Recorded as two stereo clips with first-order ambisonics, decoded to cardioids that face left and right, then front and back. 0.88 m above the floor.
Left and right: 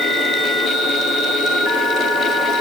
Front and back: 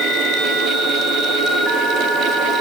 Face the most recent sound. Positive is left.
No sound to turn to.